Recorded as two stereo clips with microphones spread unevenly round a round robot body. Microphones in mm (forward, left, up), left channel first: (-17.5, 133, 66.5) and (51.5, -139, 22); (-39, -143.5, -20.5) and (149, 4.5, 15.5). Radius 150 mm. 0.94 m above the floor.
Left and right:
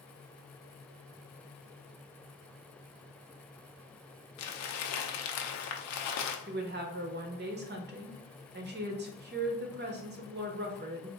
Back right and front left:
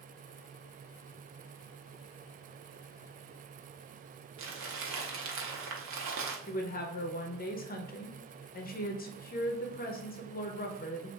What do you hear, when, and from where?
4.4 s crumpling: 75° left, 0.6 m
6.5 s a woman speaking: 110° right, 0.7 m